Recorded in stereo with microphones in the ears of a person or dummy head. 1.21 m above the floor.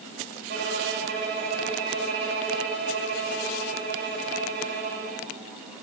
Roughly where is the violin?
Right.